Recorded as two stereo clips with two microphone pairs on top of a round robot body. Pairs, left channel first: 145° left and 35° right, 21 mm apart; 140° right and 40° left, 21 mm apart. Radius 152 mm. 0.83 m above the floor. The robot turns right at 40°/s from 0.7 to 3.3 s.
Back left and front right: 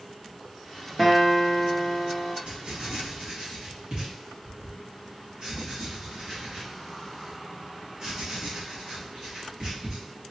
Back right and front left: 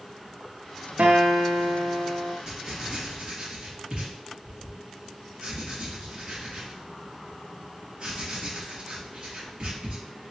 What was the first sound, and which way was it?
A guitar, 50° left.